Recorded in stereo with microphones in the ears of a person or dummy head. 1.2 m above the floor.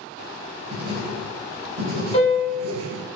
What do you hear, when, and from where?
0.7 s writing: 45° right (ahead or behind), 1.1 m
2.1 s a piano: 40° left (ahead or behind), 1.0 m